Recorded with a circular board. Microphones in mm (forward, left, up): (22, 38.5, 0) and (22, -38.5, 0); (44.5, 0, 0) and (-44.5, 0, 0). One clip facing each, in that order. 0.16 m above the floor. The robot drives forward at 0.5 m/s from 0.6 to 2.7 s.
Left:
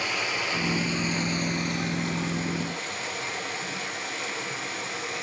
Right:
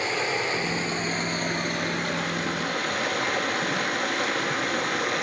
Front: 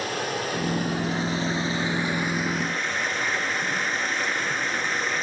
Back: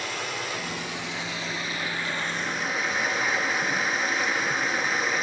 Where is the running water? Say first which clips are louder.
Right 3 dB, front 4 dB; 35° right, 1.3 m; by 5.2 s 95° right, 0.8 m.